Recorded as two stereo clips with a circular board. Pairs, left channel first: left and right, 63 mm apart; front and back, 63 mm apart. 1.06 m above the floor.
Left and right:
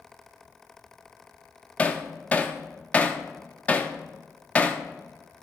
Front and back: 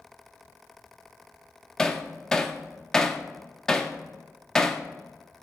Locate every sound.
1.8 s hammering: 60° left, 0.5 m